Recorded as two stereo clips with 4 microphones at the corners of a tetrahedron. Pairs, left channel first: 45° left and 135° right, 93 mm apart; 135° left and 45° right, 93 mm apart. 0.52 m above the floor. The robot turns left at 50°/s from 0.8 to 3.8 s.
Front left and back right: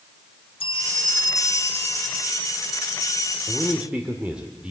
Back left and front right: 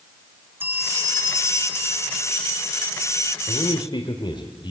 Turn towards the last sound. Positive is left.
turn(degrees=150)